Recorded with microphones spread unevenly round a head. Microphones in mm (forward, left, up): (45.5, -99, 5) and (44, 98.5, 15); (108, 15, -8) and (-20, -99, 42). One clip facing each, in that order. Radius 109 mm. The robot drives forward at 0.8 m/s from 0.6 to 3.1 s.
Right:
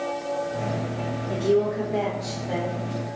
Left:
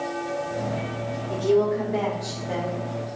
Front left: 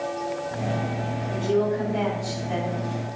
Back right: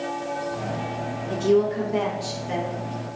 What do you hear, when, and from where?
1.3 s a woman speaking: 175° right, 3 m